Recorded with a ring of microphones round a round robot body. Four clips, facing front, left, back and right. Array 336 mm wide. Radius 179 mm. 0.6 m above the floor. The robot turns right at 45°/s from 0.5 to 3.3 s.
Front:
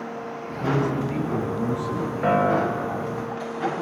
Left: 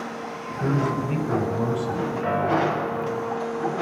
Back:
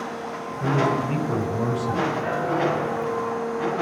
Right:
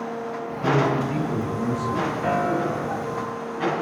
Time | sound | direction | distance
0.6 | a man speaking | 100° left | 5 m
2.2 | a piano | straight ahead | 3.5 m